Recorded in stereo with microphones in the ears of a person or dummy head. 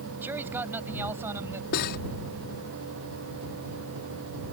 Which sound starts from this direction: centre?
A man speaking, at 0.2 s.